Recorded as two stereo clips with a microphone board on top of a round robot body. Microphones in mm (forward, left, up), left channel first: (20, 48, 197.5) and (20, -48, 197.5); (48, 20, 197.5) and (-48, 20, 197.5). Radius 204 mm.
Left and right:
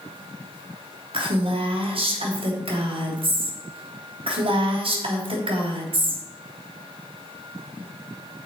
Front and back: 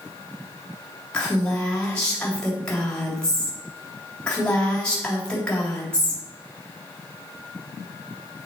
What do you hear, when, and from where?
1.1 s a woman speaking: 80° right, 3 m